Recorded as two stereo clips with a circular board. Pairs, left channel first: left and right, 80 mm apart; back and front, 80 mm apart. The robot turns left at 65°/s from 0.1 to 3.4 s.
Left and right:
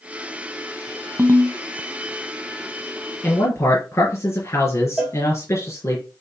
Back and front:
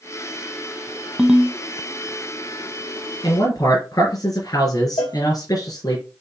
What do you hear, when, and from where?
1.2 s a ringtone: 70° right, 0.7 m; by 1.6 s 95° right, 0.7 m
3.2 s a man speaking: 155° left, 3.5 m; by 6.0 s 145° left, 3.5 m
5.0 s a cowbell: 175° right, 3 m